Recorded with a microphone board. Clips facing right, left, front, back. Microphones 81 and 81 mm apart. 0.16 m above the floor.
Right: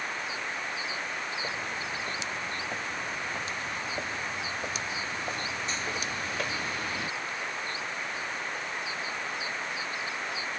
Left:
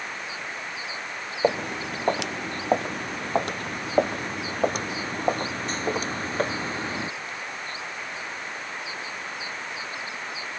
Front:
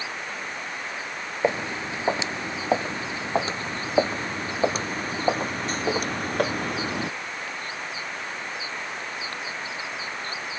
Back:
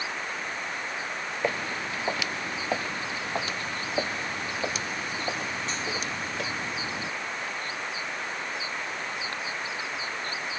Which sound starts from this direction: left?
Footsteps, at 1.4 s.